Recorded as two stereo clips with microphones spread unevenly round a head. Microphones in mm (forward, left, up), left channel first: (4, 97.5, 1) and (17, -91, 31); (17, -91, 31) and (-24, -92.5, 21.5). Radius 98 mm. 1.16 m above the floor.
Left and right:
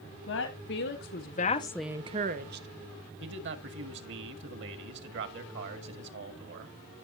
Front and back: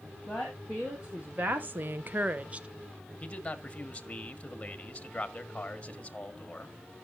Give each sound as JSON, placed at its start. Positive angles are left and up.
{"t": 0.3, "sound": "a woman speaking", "azimuth_deg": 105, "distance_m": 2.0}
{"t": 3.2, "sound": "a man speaking", "azimuth_deg": -60, "distance_m": 1.8}